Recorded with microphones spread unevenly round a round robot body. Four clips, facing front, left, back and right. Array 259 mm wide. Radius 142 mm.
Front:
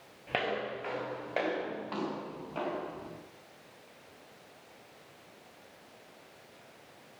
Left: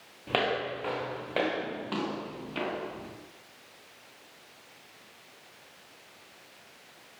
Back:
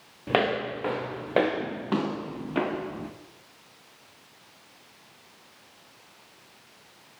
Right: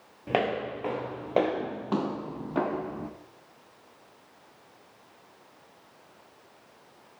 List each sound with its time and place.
0.3 s footsteps: 160° right, 5.5 m; by 3.1 s 140° right, 5 m